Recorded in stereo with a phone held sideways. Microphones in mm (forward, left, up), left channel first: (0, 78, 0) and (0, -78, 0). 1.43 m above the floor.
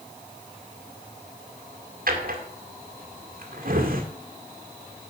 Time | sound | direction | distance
2.1 | a drawer | 65° right (ahead or behind) | 2 m